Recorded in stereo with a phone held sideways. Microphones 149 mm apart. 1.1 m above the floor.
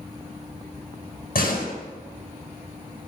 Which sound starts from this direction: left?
A door slam, at 1.4 s.